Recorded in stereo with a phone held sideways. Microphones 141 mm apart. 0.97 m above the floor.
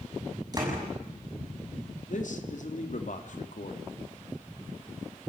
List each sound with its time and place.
0.5 s a door slam: 30° right (ahead or behind), 7 m
2.1 s a man speaking: 65° left (ahead or behind), 2.5 m